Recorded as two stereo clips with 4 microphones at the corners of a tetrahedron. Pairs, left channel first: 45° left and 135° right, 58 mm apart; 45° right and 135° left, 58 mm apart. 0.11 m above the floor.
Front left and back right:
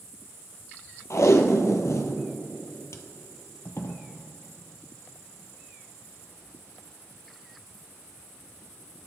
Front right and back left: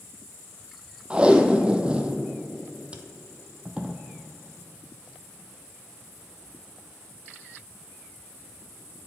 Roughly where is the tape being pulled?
Ahead left.